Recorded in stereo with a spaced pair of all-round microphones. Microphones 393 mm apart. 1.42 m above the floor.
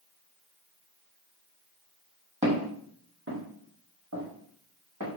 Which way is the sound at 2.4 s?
15° right (ahead or behind).